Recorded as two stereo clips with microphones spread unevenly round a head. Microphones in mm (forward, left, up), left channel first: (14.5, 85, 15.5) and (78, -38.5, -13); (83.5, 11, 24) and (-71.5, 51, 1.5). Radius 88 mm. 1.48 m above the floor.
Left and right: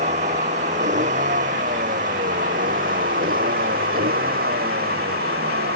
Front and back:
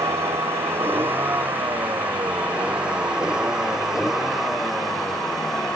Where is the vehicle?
115° right; by 5.8 s 100° right.